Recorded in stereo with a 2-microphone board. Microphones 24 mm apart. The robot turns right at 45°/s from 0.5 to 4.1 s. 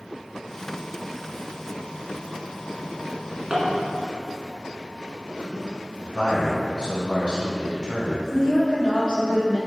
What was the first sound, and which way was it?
A drawer, centre (ahead or behind).